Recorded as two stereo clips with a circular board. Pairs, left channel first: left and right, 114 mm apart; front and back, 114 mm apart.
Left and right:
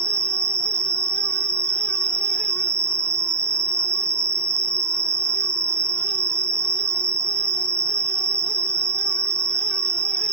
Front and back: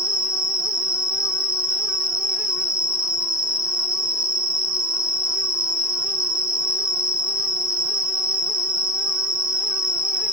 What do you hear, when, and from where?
0.0 s an insect: 95° right, 0.9 m